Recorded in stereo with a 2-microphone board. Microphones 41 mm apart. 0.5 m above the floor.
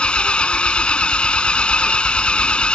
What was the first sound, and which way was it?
An engine running, 25° left (ahead or behind).